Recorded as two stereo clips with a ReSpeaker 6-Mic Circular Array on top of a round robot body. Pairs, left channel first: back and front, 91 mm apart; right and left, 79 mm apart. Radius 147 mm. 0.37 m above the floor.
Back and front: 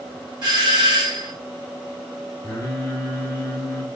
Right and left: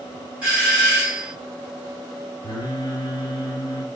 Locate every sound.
0.4 s a doorbell: 20° left, 2.5 m
2.4 s singing: 120° right, 1.5 m